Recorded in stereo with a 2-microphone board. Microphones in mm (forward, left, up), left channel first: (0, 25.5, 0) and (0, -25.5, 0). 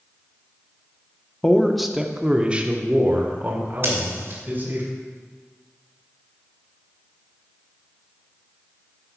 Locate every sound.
1.4 s a man speaking: 15° left (ahead or behind), 0.6 m; by 4.8 s 40° right (ahead or behind), 2 m
3.8 s scissors: 50° right (ahead or behind), 2.5 m